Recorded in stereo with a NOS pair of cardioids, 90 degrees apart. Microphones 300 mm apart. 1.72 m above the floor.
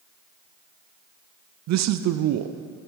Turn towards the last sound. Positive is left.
turn(degrees=-65)